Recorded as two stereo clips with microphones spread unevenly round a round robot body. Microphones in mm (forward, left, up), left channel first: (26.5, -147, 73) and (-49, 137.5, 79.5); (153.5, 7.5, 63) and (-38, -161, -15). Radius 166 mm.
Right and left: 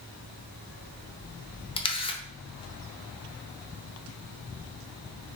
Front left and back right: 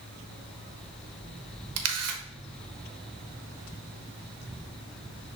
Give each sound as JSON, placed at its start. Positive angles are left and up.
{"t": 1.8, "sound": "a camera shutter", "azimuth_deg": -150, "distance_m": 1.0}